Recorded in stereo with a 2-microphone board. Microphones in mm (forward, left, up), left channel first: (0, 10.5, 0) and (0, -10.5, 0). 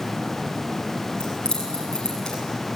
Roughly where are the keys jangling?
Left.